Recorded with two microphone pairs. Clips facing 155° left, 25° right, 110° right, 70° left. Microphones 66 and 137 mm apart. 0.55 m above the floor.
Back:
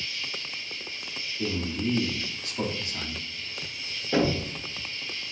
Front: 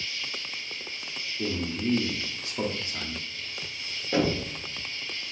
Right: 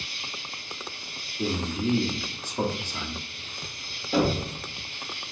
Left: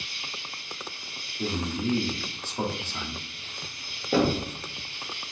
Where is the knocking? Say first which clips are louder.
Back 1 dB, left 1 dB; 65° left, 1.3 m.